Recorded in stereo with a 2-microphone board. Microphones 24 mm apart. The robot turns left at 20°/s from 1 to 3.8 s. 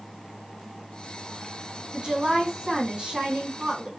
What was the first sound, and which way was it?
A woman speaking, 75° right.